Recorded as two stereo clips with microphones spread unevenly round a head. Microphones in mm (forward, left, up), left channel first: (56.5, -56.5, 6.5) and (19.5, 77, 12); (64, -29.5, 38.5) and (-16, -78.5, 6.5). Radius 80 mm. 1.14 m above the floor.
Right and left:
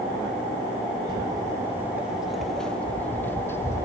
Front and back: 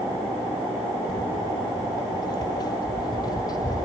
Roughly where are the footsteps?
Ahead left.